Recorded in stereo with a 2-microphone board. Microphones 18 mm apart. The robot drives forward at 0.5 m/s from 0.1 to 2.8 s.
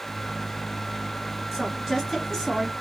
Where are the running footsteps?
No running footsteps in this recording.